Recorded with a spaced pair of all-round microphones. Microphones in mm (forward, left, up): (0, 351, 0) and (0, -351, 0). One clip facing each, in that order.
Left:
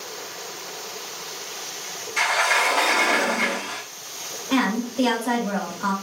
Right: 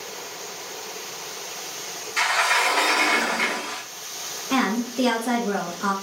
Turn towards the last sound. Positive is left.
turn(degrees=10)  # may be behind; listen again after turning